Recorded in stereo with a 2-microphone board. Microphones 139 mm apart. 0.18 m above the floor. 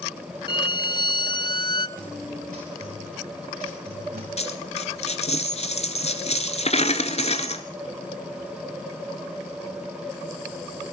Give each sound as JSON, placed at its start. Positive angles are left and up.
{"t": 0.5, "sound": "a violin", "side_deg": 35, "distance_m": 0.6}
{"t": 2.0, "sound": "a guitar", "side_deg": -85, "distance_m": 8.5}
{"t": 4.4, "sound": "a dropped coin", "side_deg": 50, "distance_m": 1.4}